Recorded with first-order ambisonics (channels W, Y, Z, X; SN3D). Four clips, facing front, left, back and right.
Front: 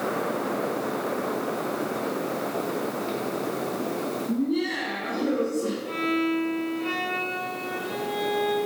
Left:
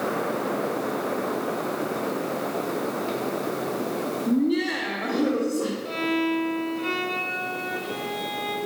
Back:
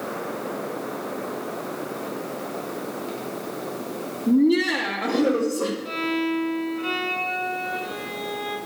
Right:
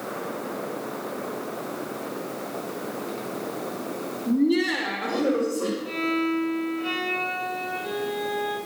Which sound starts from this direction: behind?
Laughter, at 4.3 s.